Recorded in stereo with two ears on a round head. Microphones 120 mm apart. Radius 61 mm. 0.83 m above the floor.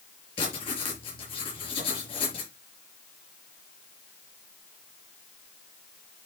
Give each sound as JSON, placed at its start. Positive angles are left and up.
{"t": 0.4, "sound": "writing", "side_deg": 40, "distance_m": 5.0}